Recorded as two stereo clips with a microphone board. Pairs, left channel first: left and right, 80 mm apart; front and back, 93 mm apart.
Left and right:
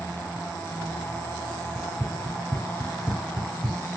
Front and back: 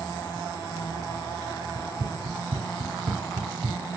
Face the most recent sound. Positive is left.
turn(degrees=-175)